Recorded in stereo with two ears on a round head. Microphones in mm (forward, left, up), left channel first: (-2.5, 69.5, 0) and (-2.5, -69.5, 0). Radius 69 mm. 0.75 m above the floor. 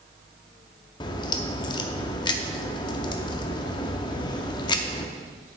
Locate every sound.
1.0 s a crack: 30° left (ahead or behind), 0.6 m